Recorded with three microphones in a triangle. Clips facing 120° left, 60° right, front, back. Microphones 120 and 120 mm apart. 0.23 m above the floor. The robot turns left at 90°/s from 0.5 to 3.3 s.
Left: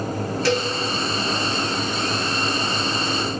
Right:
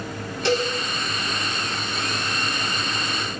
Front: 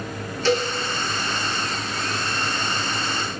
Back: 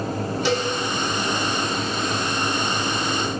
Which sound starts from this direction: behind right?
A cowbell, at 0.5 s.